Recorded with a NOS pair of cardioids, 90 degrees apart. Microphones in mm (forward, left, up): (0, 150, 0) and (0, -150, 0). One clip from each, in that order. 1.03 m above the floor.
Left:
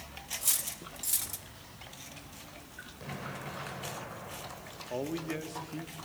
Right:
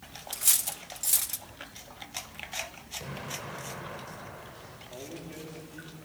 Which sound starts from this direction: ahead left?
A man speaking, at 4.9 s.